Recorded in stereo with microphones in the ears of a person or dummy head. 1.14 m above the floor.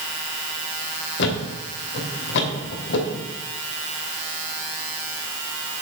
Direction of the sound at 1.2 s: 60° left (ahead or behind).